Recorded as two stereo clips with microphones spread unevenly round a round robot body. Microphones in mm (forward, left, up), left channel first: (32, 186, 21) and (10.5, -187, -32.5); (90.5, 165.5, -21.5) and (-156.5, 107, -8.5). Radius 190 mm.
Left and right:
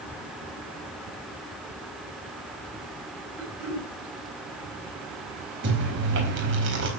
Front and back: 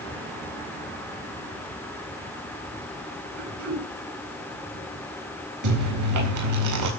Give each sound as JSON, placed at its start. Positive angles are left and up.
{"t": 3.4, "sound": "throat clearing", "azimuth_deg": 180, "distance_m": 6.5}
{"t": 5.6, "sound": "chewing", "azimuth_deg": -150, "distance_m": 4.0}